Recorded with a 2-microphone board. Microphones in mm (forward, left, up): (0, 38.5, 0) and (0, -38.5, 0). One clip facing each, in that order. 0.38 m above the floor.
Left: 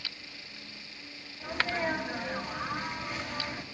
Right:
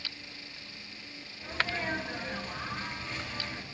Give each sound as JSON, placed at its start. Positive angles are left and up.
{"t": 1.4, "sound": "a sneeze", "side_deg": 20, "distance_m": 3.0}